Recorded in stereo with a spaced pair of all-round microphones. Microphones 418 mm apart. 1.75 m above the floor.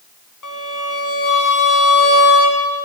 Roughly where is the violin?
Left.